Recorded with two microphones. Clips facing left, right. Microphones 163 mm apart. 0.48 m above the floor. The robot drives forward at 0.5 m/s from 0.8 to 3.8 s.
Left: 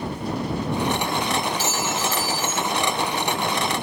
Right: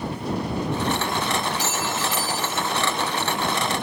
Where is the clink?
15° right (ahead or behind), 4 m.